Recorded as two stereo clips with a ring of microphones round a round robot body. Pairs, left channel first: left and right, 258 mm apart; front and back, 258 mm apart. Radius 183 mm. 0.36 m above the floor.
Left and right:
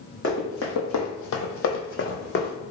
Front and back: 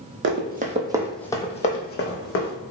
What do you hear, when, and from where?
0.2 s running footsteps: 140° left, 0.7 m; by 2.5 s 35° left, 1.0 m